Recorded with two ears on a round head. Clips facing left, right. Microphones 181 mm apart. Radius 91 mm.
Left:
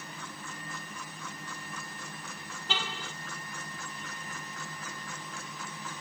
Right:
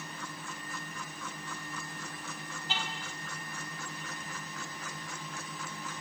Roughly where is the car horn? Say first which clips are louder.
Left 3 dB; left.